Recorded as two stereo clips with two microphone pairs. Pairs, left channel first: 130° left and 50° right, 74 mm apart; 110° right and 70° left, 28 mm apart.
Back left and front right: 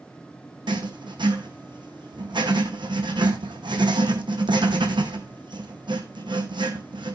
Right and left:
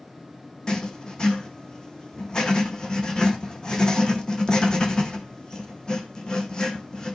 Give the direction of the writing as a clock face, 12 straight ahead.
1 o'clock.